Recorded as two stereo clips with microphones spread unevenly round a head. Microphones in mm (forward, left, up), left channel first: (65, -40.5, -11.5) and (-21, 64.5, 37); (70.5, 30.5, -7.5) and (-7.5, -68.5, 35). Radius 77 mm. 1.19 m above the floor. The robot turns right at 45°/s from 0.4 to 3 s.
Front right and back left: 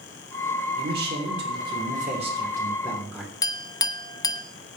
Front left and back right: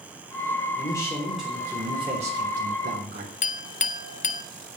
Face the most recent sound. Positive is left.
turn(degrees=20)